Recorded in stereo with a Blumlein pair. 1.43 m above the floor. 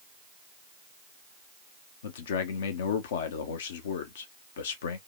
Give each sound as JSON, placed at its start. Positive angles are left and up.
{"t": 2.0, "sound": "a man speaking", "azimuth_deg": 60, "distance_m": 0.6}